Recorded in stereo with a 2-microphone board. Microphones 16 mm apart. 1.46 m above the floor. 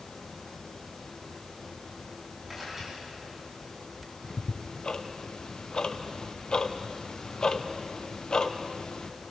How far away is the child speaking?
I don't hear a child speaking.